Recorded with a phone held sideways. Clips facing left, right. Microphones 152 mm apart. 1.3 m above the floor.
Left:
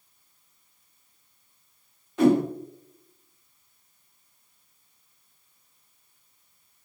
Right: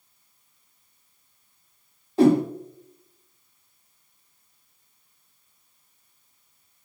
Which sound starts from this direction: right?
A whoosh, at 2.2 s.